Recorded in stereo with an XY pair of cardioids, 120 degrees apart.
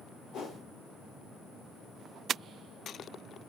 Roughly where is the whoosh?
Ahead left.